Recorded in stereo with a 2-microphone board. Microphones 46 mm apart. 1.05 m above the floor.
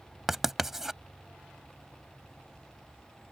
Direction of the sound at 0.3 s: 10° right (ahead or behind).